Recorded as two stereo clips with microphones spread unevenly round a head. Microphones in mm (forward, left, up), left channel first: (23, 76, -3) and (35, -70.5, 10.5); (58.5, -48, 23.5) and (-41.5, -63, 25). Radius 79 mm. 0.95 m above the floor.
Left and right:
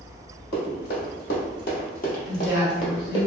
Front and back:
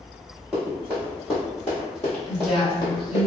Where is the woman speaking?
105° left, 1.8 m.